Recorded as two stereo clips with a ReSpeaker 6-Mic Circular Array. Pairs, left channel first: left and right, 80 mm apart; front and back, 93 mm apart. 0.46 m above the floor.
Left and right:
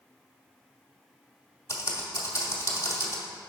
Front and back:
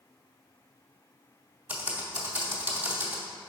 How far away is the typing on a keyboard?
About 1.3 m.